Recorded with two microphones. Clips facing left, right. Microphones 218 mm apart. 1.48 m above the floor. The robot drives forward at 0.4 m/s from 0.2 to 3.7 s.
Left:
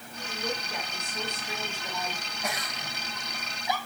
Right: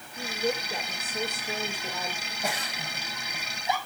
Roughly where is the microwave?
No microwave in this recording.